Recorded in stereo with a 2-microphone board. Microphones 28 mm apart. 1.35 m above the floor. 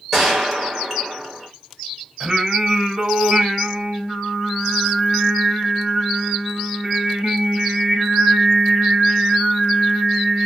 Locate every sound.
0.1 s a gunshot: 10° right (ahead or behind), 1.9 m
2.2 s singing: 30° right (ahead or behind), 2.5 m